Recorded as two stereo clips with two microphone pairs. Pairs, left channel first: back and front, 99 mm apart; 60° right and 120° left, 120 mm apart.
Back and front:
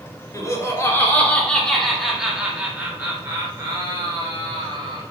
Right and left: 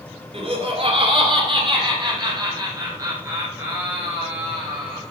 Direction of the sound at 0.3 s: 130° left.